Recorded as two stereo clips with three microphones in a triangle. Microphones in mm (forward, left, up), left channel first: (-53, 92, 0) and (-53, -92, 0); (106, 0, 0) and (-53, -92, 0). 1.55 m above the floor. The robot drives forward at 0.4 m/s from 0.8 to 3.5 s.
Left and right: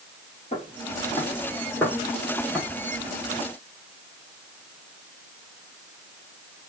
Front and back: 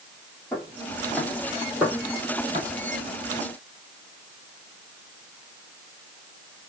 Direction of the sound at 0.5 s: 105° left.